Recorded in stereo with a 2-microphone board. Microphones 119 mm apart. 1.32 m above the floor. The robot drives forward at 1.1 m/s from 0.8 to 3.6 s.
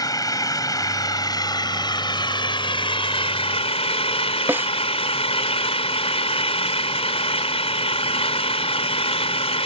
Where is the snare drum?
15° right (ahead or behind).